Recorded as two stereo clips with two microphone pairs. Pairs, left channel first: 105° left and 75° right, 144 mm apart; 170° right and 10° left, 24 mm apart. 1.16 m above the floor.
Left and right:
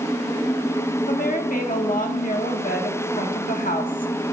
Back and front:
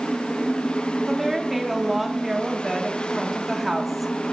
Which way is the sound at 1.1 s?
90° left.